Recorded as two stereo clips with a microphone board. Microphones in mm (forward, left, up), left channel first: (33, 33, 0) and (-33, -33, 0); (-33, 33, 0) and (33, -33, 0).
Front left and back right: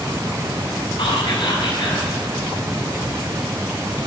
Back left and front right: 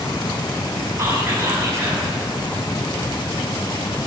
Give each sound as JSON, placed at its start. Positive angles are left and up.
{"t": 1.0, "sound": "whispering", "azimuth_deg": 15, "distance_m": 5.0}